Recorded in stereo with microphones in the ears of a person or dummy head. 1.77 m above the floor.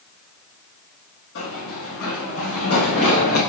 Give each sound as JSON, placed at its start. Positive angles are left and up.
{"t": 1.4, "sound": "running footsteps", "side_deg": 60, "distance_m": 3.5}